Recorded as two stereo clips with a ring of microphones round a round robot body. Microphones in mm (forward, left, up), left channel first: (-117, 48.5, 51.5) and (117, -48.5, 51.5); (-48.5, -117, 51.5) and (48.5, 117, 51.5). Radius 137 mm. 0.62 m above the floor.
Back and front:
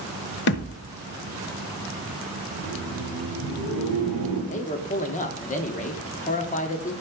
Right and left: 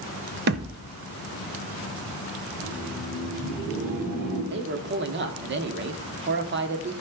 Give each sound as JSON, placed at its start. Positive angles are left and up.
{"t": 0.5, "sound": "a thud", "azimuth_deg": 115, "distance_m": 0.6}
{"t": 2.5, "sound": "laughter", "azimuth_deg": 15, "distance_m": 5.5}
{"t": 4.5, "sound": "a man speaking", "azimuth_deg": 105, "distance_m": 1.2}